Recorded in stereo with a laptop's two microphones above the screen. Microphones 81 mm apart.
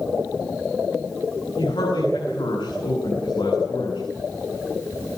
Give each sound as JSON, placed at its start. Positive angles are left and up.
{"t": 1.6, "sound": "a man speaking", "side_deg": 85, "distance_m": 9.5}